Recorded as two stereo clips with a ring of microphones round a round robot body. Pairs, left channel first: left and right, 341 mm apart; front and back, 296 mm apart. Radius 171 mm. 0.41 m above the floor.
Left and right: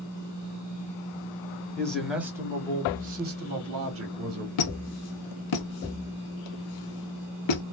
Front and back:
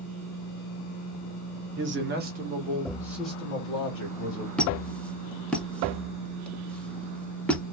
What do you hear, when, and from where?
1.8 s a man speaking: 175° left, 1.1 m; by 4.5 s 55° right, 1.3 m
4.6 s a squeak: 85° left, 0.7 m